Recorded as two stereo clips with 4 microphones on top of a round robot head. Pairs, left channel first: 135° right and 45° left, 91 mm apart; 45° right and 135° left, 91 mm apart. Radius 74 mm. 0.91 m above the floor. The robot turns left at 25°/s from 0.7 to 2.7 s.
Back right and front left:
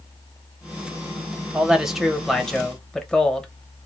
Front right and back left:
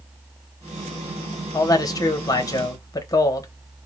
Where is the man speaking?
30° right, 0.9 m; by 3.5 s 60° right, 0.9 m.